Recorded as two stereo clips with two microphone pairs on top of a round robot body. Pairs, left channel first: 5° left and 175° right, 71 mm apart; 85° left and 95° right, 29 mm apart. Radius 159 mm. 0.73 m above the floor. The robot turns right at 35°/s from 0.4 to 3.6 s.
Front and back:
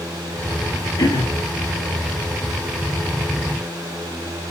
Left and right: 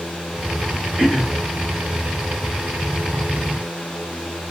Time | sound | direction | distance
1.0 | throat clearing | 25° right | 5.5 m